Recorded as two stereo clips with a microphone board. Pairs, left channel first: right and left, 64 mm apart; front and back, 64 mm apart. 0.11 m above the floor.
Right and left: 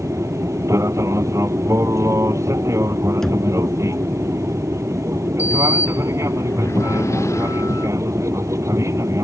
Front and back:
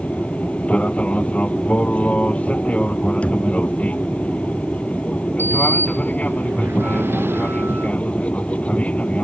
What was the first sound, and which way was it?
An aircraft, 65° left.